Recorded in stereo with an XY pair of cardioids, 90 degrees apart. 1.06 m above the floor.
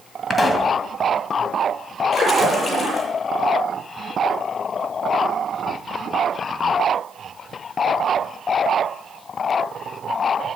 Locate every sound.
0.3 s a pop: 25° left, 2 m
2.1 s a splash: 35° left, 9 m